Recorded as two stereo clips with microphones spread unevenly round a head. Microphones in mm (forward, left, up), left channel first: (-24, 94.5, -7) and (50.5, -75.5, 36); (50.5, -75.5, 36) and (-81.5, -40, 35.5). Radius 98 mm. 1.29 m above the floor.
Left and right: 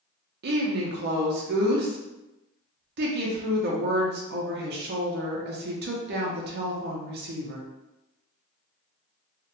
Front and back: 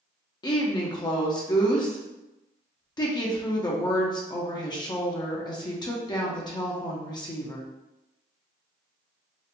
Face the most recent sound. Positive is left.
turn(degrees=-55)